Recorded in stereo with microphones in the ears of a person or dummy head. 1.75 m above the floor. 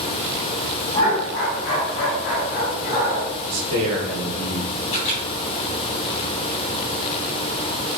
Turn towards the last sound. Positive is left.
turn(degrees=40)  # may be behind; listen again after turning